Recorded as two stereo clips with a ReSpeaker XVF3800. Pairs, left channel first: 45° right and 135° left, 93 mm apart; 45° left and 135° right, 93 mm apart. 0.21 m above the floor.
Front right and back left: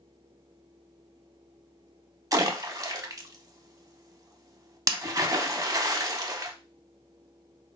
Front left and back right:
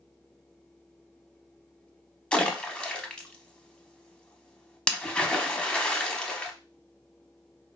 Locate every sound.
2.3 s a splash: 120° left, 0.5 m